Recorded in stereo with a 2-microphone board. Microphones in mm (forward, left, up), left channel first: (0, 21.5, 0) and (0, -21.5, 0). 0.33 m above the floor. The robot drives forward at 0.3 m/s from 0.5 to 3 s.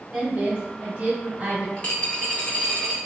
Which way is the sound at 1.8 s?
30° left (ahead or behind).